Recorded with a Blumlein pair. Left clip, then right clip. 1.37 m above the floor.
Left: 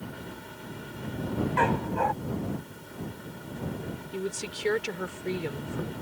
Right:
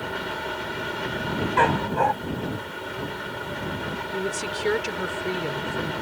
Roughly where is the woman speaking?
Ahead.